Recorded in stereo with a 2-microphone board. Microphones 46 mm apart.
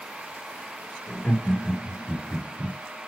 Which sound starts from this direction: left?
Laughter, at 1.1 s.